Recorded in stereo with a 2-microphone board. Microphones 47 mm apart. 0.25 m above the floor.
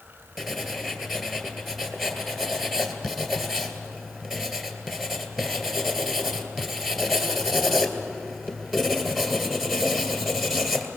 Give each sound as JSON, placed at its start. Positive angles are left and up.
{"t": 0.4, "sound": "writing", "side_deg": -5, "distance_m": 2.0}